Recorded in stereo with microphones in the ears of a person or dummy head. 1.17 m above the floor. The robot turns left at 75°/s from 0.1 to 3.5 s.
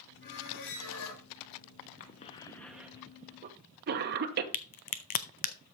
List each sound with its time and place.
0.2 s a squeak: 140° left, 2.5 m; by 1.2 s 65° left, 2.5 m
2.0 s a cough: 45° left (ahead or behind), 0.9 m; by 4.4 s 50° right (ahead or behind), 0.9 m
4.5 s a crack: 40° left (ahead or behind), 0.5 m